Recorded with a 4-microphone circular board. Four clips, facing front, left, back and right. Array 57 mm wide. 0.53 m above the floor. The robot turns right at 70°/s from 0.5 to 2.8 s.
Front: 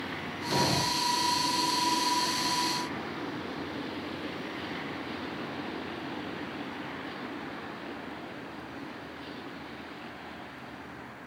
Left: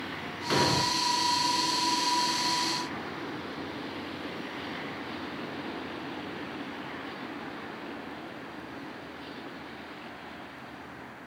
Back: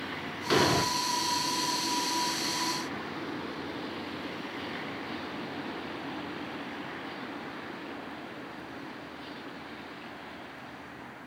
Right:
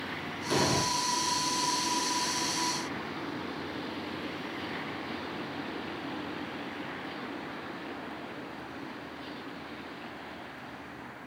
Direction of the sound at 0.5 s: 145° left.